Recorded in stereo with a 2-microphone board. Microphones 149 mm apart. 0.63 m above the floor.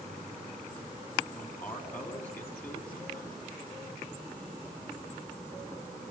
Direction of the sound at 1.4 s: 10° left (ahead or behind).